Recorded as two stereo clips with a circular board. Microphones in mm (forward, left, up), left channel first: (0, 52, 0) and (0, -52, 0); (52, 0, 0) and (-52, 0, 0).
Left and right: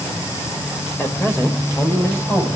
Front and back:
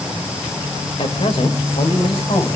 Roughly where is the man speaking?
Ahead.